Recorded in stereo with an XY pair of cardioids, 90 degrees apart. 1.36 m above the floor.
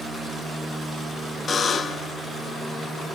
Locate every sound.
1.5 s a buzzer: 45° left, 0.8 m